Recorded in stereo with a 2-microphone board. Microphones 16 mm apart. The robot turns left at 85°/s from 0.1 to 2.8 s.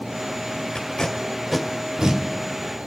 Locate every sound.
0.8 s tape being pulled: 60° left (ahead or behind), 1.7 m; by 2.2 s 50° right (ahead or behind), 1.7 m